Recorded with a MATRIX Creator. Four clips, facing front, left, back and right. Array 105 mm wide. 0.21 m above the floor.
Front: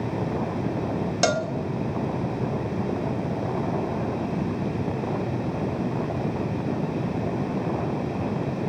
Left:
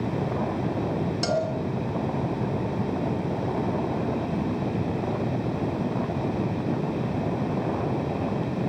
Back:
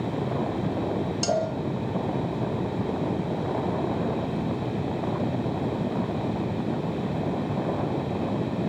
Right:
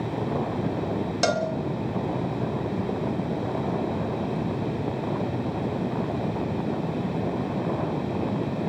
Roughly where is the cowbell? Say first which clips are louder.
Right 2 dB, front 2 dB; ahead right.